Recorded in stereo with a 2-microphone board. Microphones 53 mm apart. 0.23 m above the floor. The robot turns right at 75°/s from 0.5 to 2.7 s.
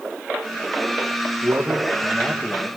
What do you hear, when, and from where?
1.4 s a man speaking: 50° right, 5.5 m; by 2.7 s 45° left, 5.5 m